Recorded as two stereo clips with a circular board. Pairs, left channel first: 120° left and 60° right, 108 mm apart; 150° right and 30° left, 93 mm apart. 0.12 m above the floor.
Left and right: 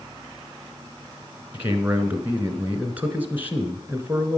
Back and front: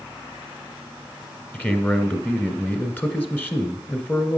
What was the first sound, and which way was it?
A man speaking, 110° right.